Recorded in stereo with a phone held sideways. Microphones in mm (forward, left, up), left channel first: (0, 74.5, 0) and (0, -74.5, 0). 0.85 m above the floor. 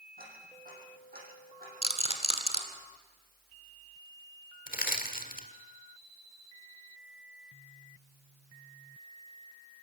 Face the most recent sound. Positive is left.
turn(degrees=70)  # may be behind; listen again after turning